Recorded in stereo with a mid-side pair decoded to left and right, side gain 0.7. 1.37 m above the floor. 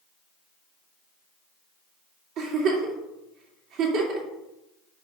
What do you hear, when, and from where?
2.4 s a giggle: 65° right, 2 m